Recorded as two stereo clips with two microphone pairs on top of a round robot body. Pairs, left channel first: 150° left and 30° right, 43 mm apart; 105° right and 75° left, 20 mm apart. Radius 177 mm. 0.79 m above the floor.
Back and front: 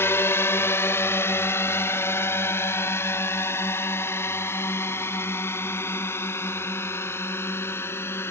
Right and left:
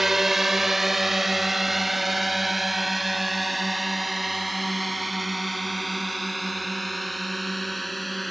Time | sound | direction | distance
0.0 | a drone | 145° left | ?